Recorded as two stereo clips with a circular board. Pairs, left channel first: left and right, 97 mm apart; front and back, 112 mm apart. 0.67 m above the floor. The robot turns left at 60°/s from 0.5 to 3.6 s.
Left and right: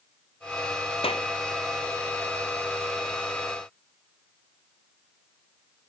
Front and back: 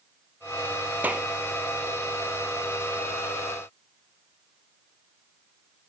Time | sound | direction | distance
1.0 | a clap | 105° left | ?